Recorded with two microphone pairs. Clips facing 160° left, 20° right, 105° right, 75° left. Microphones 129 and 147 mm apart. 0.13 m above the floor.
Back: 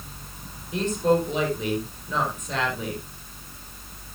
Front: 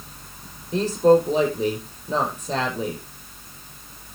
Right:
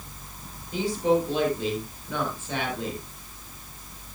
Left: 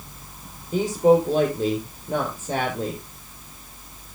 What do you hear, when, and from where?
0.7 s a woman speaking: 30° left, 4.5 m